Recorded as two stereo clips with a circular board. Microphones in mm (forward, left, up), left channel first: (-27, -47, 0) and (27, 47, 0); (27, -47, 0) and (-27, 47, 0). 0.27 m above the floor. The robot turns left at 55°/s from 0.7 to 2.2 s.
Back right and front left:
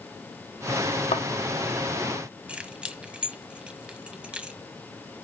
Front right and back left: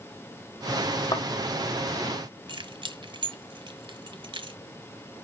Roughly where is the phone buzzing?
No phone buzzing in this recording.